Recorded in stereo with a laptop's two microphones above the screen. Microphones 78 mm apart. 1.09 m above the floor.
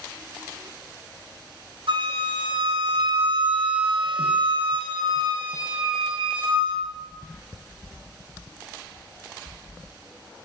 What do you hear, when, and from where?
1.9 s a flute: 85° right, 0.7 m